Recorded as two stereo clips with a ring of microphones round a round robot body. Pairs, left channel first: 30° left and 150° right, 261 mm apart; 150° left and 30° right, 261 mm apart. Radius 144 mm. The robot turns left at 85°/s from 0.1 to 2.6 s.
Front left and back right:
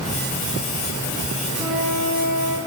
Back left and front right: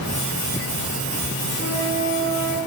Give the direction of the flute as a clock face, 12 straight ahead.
11 o'clock.